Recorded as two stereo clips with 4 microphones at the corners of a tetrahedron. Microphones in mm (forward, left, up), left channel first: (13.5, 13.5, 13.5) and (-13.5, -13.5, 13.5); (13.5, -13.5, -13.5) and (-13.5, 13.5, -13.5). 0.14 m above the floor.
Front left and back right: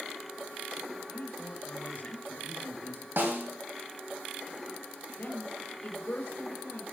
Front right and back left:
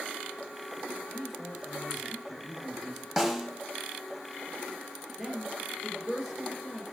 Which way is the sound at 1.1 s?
40° left.